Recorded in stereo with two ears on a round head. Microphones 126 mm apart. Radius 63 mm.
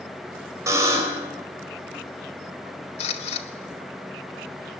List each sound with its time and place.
0.7 s a buzzer: 20° right (ahead or behind), 4 m
3.0 s a camera shutter: 45° left (ahead or behind), 1.8 m